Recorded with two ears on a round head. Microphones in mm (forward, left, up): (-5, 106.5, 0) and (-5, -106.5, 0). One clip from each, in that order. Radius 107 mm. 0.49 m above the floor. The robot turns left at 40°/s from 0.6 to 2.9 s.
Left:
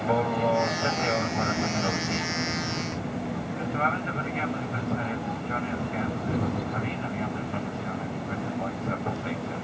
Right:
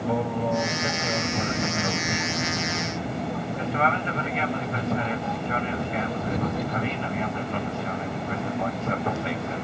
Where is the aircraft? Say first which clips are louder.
Left 2 dB; 65° left; by 9.6 s 25° right.